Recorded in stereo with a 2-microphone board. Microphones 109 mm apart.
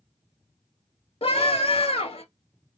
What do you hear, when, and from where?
1.2 s a scream: 65° left (ahead or behind), 2.5 m